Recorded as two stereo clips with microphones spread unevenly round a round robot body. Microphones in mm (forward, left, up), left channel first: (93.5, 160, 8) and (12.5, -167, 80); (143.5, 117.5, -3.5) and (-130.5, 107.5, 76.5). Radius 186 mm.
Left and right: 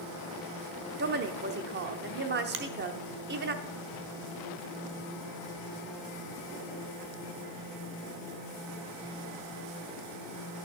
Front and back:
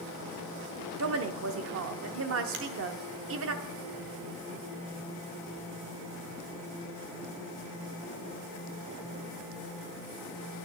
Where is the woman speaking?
160° right, 0.9 m.